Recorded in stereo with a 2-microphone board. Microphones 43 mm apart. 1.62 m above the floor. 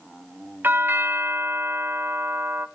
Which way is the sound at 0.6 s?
60° right (ahead or behind).